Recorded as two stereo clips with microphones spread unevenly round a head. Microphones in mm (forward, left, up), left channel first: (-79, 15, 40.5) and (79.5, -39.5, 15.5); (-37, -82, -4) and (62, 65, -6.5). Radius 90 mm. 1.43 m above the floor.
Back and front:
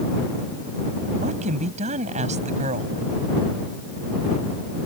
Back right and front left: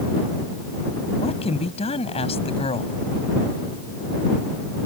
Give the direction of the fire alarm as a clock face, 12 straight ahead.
I don't hear a fire alarm.